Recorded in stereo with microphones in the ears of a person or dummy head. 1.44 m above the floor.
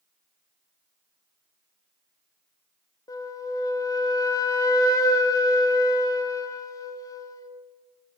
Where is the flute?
20° left (ahead or behind), 0.8 m.